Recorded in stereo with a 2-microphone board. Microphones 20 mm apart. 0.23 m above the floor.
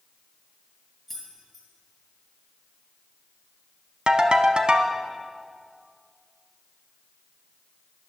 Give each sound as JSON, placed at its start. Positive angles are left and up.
{"t": 1.1, "sound": "keys jangling", "side_deg": 10, "distance_m": 3.0}
{"t": 4.1, "sound": "a ringtone", "side_deg": -50, "distance_m": 0.7}